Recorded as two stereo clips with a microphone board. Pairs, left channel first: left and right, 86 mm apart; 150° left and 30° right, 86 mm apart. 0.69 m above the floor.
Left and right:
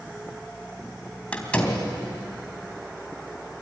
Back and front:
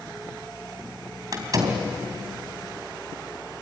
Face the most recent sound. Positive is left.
turn(degrees=15)